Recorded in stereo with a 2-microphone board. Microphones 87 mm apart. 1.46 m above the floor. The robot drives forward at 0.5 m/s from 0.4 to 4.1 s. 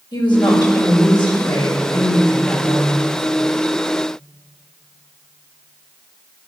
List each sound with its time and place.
0.1 s a woman speaking: 65° left (ahead or behind), 5.5 m; by 3.1 s 55° left (ahead or behind), 6 m